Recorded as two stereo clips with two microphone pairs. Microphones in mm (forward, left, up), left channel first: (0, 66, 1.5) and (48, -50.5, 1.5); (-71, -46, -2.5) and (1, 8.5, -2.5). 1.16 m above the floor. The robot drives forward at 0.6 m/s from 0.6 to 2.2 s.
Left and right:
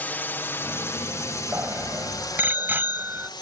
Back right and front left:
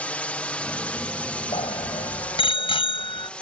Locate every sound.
0.0 s a drone: 170° left; by 3.4 s 145° left
1.5 s a bicycle bell: 140° right